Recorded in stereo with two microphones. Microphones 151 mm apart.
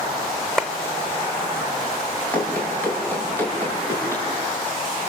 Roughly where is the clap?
Centre.